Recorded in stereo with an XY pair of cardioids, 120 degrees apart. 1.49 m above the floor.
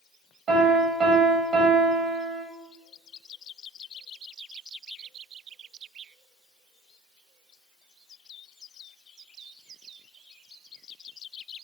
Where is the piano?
60° right, 1.0 m.